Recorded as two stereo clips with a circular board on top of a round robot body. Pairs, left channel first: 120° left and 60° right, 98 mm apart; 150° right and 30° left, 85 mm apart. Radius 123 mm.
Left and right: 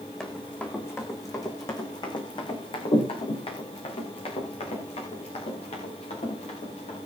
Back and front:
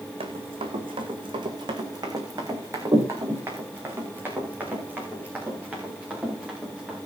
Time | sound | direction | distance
0.2 | running footsteps | 35° left | 3 m